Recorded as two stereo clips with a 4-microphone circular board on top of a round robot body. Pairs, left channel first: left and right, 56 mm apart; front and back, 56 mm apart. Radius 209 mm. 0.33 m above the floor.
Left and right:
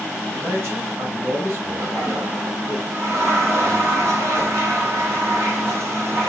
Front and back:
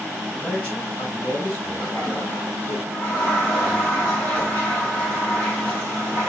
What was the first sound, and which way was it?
A man speaking, 65° right.